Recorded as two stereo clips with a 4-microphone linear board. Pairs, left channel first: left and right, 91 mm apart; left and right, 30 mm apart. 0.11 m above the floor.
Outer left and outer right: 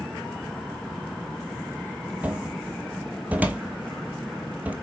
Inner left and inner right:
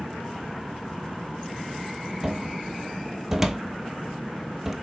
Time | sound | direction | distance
2.2 | a cupboard door | 15° right (ahead or behind) | 1.2 m